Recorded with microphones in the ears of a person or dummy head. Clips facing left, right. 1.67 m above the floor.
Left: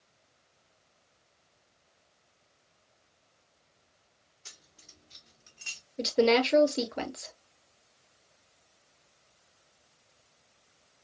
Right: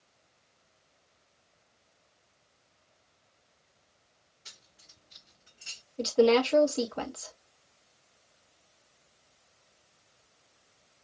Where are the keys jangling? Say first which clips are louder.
Left 3 dB; 60° left (ahead or behind), 2.5 m; by 5.8 s 65° left (ahead or behind), 2 m.